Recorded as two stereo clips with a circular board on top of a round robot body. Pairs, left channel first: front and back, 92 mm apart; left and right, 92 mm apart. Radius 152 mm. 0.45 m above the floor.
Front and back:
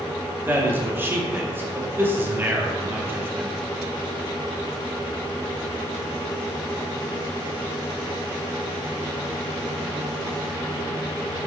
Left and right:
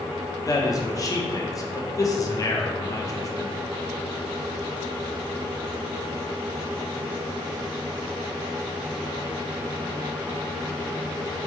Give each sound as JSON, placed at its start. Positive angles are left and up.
{"t": 0.5, "sound": "a man speaking", "azimuth_deg": 120, "distance_m": 1.0}